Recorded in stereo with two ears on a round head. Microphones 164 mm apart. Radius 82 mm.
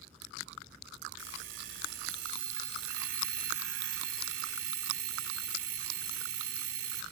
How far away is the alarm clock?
About 3.5 m.